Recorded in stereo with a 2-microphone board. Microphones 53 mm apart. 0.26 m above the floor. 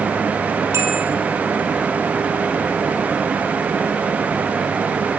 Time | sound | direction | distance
0.7 | a bell | 60° right (ahead or behind) | 2 m